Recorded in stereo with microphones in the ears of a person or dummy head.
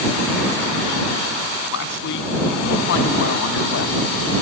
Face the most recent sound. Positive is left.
turn(degrees=65)  # may be behind; listen again after turning